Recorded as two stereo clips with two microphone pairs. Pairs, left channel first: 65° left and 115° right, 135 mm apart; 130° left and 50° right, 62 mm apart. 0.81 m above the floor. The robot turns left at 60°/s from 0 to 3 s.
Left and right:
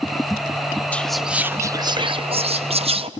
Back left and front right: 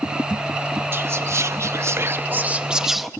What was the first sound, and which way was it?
Whispering, 15° right.